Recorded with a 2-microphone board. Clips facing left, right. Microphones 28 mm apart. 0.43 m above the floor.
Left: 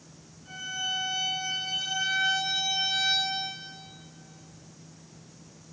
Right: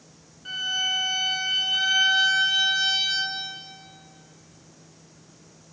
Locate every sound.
0.5 s a violin: 75° right (ahead or behind), 2 m